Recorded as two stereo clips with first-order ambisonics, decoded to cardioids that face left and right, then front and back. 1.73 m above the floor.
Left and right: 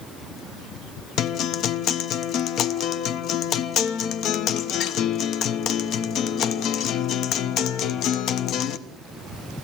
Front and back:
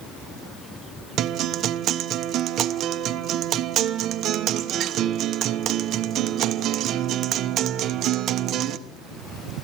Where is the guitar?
135° left, 0.9 m.